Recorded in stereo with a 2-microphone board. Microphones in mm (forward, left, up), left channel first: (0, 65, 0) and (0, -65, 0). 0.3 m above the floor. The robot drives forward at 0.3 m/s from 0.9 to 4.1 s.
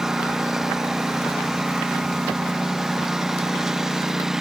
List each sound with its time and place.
0.0 s a lawn mower: 5° right (ahead or behind)